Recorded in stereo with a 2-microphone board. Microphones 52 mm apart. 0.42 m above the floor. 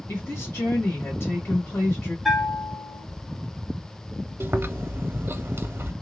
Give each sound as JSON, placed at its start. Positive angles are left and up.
{"t": 0.1, "sound": "a woman speaking", "side_deg": 55, "distance_m": 1.8}
{"t": 2.2, "sound": "a bell", "side_deg": 0, "distance_m": 0.8}
{"t": 4.4, "sound": "chewing", "side_deg": -50, "distance_m": 0.5}